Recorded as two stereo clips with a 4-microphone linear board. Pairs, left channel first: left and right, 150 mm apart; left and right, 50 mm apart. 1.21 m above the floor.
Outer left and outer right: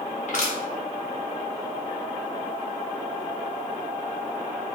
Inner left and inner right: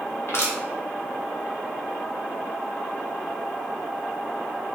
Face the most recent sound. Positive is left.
turn(degrees=55)  # may be behind; listen again after turning